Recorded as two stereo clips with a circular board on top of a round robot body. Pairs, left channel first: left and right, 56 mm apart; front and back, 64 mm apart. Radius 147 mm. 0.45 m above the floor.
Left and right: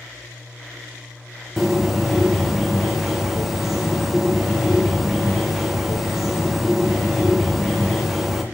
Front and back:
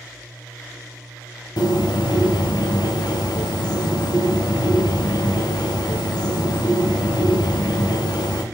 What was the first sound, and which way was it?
A bird, 5° right.